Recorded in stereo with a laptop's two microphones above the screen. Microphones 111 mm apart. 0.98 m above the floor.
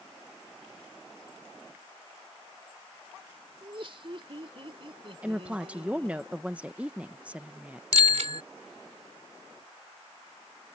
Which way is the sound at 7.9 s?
85° right.